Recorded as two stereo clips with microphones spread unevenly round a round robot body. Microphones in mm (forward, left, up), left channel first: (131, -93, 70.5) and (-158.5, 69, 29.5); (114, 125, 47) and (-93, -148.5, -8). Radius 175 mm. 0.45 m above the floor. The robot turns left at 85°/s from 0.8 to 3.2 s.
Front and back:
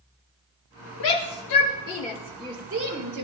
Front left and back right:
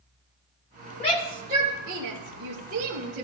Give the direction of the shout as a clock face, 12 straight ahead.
1 o'clock.